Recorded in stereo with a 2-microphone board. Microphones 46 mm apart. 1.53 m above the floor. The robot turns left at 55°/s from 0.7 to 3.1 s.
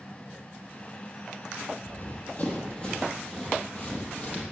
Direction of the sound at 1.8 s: 50° left (ahead or behind).